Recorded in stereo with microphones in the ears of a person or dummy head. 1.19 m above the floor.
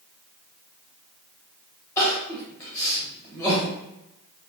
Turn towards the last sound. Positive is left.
turn(degrees=15)  # may be behind; listen again after turning